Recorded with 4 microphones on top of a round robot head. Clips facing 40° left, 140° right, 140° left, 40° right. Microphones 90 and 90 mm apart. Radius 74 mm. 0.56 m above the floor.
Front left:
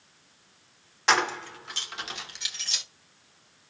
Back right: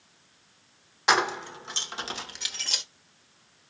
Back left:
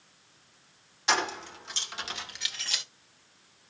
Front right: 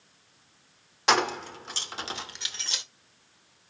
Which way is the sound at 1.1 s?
60° right.